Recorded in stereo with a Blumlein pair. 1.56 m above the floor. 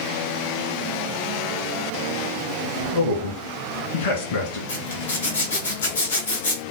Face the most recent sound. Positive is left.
turn(degrees=70)